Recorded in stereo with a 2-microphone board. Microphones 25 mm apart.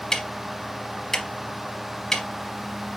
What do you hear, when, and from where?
0.1 s ticking: 20° left (ahead or behind), 1.1 m